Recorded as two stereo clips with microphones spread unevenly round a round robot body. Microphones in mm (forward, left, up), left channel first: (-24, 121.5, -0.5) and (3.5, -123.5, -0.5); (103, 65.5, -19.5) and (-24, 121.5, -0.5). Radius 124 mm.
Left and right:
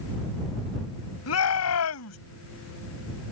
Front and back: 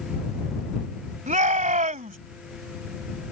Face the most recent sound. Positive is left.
turn(degrees=125)